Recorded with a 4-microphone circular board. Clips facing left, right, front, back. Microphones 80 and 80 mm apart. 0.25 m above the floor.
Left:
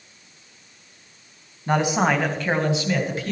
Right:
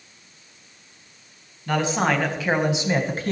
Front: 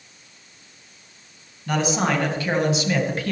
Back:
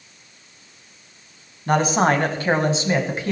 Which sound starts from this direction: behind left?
A man speaking, at 1.7 s.